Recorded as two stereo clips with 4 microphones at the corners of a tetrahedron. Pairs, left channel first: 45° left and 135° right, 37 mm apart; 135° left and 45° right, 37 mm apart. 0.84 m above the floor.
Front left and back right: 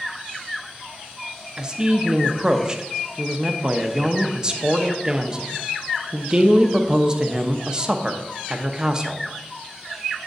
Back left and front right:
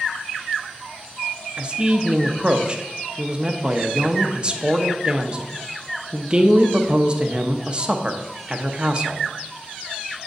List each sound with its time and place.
1.6 s a man speaking: 85° right, 0.7 m